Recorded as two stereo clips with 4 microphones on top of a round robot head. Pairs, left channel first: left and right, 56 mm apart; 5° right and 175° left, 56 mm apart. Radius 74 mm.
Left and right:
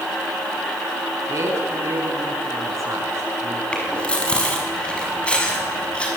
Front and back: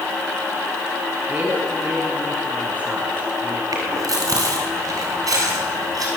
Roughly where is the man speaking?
Behind right.